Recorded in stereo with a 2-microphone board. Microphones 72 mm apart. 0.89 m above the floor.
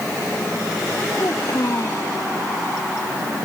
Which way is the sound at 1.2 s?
45° left (ahead or behind).